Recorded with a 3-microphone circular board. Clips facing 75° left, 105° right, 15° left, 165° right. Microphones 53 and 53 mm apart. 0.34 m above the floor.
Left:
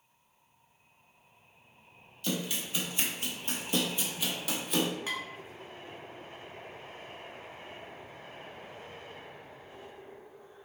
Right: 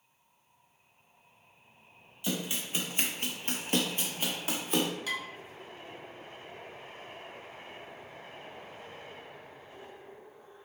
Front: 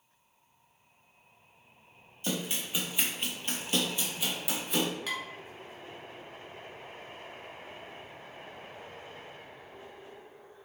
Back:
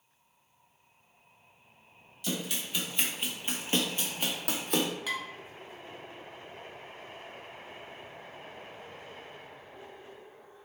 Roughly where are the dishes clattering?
Left.